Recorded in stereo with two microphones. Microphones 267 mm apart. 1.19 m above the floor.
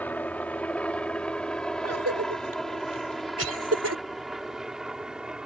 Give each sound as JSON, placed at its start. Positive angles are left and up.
{"t": 0.0, "sound": "a helicopter", "side_deg": 5}
{"t": 1.8, "sound": "a cough", "side_deg": -65}